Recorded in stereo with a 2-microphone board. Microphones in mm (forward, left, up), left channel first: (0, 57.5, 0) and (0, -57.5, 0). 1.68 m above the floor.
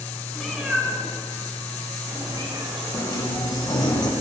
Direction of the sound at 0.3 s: Centre (ahead or behind).